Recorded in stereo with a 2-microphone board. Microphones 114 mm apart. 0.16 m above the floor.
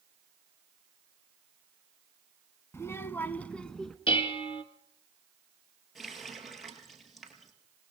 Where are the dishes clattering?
55° left (ahead or behind), 1.3 m.